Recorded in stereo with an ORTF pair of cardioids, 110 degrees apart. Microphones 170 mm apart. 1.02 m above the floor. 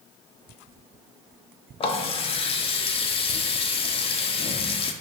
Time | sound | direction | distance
1.8 | a running tap | 35° left | 0.5 m